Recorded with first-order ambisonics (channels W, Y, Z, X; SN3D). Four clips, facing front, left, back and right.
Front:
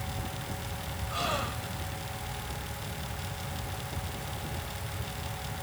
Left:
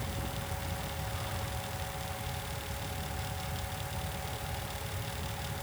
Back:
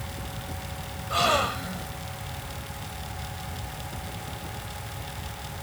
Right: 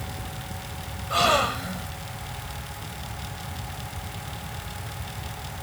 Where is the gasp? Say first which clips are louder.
Right 18 dB, back 9 dB; 120° right.